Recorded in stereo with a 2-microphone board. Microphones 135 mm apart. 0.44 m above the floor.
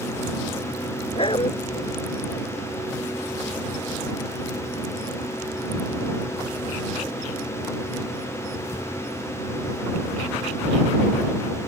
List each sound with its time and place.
1.1 s a dog barking: 45° left (ahead or behind)